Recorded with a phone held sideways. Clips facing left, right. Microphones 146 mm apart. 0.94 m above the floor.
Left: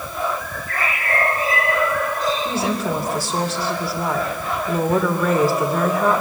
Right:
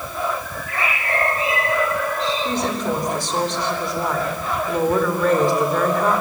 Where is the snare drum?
I don't hear a snare drum.